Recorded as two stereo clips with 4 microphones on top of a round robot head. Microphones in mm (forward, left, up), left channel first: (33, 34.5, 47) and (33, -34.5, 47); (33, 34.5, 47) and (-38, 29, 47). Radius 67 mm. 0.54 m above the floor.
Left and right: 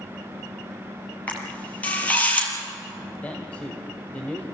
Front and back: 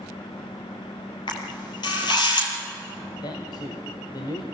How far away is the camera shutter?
About 4 m.